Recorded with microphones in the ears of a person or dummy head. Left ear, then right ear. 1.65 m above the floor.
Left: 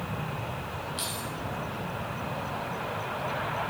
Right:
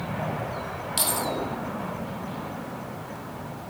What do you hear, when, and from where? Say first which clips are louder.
1.0 s keys jangling: right 11 dB; 60° right (ahead or behind), 1.8 m